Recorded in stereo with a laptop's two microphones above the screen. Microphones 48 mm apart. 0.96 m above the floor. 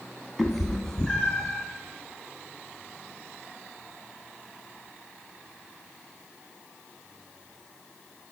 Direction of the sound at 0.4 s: Centre (ahead or behind).